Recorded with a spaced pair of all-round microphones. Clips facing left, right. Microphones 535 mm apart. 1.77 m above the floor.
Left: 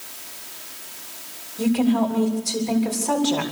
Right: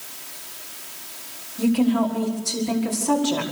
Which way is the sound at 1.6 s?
40° right (ahead or behind).